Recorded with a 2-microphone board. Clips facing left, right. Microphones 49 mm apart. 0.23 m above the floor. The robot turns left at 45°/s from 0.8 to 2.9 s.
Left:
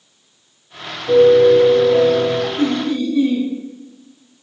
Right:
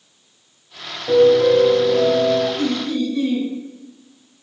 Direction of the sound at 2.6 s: 20° left (ahead or behind).